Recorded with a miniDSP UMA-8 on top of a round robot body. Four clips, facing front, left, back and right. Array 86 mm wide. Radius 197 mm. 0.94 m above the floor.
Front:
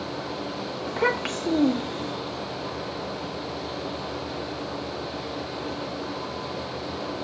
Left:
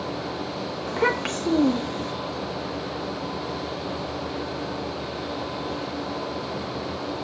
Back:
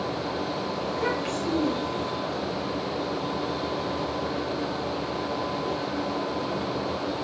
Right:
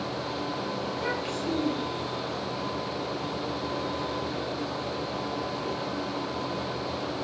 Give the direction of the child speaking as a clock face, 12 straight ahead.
10 o'clock.